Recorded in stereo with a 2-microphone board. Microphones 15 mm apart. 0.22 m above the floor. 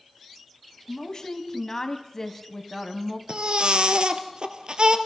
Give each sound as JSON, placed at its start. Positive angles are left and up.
{"t": 0.9, "sound": "a woman speaking", "side_deg": 45, "distance_m": 2.0}
{"t": 3.3, "sound": "a baby crying", "side_deg": -70, "distance_m": 1.6}